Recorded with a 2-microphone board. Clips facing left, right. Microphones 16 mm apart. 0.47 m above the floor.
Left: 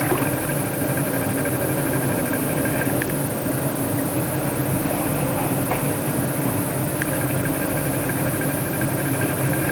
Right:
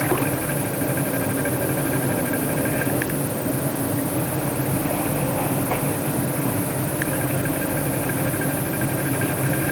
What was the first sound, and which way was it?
Only background noise.